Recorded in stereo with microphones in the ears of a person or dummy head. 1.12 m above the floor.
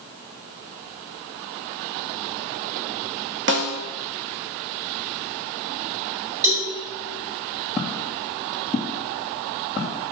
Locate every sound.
3.5 s a snare drum: 50° right (ahead or behind), 1.1 m
6.4 s a cowbell: 15° right (ahead or behind), 4.5 m
7.8 s footsteps: centre (ahead or behind), 2.0 m; by 10.0 s 15° left (ahead or behind), 3 m